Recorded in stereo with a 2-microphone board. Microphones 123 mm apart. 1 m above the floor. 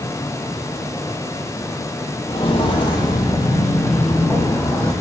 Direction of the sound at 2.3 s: 50° left (ahead or behind).